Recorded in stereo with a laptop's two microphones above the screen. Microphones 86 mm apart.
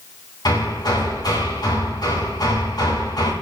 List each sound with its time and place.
0.5 s hammering: 55° left (ahead or behind), 3 m